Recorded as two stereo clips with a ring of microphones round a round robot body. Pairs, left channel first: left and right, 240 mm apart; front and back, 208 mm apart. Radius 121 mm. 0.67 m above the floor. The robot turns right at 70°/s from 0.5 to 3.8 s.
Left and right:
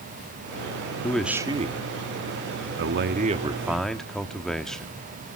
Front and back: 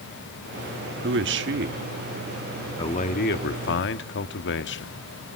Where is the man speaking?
170° left, 1.4 m; by 5.0 s straight ahead, 1.4 m.